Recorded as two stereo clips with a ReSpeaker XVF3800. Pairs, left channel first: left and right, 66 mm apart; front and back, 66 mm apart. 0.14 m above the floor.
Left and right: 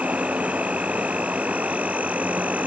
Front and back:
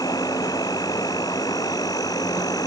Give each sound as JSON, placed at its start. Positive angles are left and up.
{"t": 0.0, "sound": "an insect", "azimuth_deg": -20}